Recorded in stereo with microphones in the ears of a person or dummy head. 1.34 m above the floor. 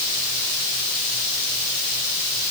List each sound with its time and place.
Only background noise.